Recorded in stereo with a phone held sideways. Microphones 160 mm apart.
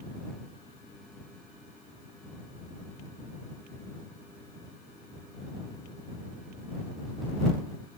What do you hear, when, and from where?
Only background noise.